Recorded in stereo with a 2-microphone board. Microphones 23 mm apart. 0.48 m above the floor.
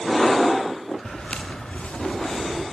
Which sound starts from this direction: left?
Footsteps, at 1.1 s.